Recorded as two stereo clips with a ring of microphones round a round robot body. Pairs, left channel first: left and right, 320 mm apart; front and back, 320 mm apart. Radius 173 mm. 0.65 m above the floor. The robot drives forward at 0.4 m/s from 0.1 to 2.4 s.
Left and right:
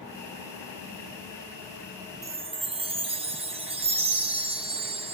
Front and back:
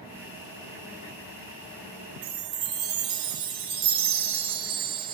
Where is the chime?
160° right, 0.5 m; by 5.1 s 165° right, 0.6 m.